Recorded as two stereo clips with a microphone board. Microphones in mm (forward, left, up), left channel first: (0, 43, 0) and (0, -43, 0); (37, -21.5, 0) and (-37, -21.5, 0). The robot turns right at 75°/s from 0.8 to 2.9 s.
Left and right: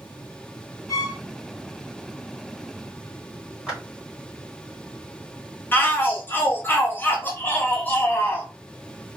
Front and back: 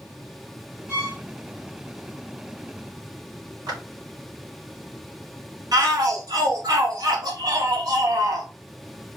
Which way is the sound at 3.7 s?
165° right.